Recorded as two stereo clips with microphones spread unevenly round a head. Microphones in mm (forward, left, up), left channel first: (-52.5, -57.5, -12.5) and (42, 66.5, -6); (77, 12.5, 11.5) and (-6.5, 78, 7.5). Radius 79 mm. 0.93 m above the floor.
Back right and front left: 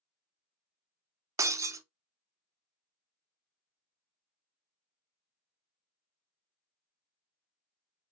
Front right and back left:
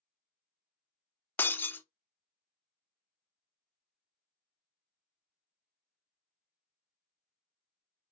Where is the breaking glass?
10° left, 0.5 m.